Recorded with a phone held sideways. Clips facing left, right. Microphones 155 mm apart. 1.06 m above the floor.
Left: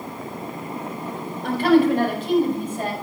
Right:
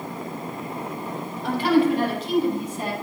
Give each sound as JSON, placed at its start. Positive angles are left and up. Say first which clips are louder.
{"t": 1.4, "sound": "a woman speaking", "louder": "left 3 dB", "side_deg": 50, "distance_m": 4.5}